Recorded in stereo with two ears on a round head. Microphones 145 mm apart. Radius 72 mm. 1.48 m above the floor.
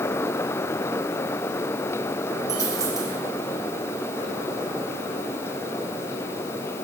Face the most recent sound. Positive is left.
turn(degrees=-25)  # may be behind; listen again after turning